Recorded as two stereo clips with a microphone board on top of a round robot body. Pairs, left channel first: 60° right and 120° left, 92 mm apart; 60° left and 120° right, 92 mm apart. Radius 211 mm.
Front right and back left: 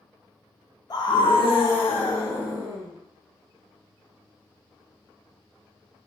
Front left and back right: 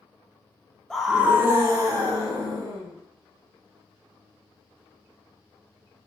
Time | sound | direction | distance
0.9 | a scream | 25° right | 0.6 m